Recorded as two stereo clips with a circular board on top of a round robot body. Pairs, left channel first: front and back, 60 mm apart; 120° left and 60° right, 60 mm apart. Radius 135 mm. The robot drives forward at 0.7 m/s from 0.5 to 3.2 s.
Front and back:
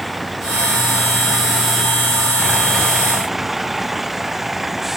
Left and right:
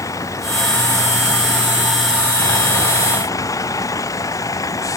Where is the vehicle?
90° left; by 5.0 s 95° left.